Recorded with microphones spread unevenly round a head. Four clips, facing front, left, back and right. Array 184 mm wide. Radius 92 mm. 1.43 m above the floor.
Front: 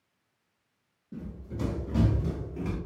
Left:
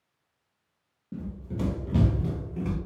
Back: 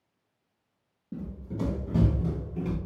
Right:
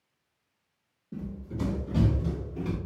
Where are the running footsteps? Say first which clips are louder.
Left 1 dB, back 3 dB; 135° left, 1.7 m; by 2.8 s 75° left, 1.4 m.